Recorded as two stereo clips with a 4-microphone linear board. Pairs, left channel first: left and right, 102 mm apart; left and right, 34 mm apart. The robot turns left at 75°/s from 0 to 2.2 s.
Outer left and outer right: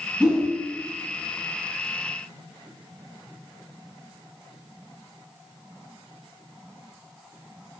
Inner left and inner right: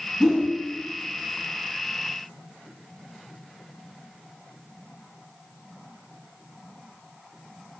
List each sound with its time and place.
0.2 s a whoosh: 10° right (ahead or behind), 0.7 m; by 0.5 s 5° left (ahead or behind), 0.7 m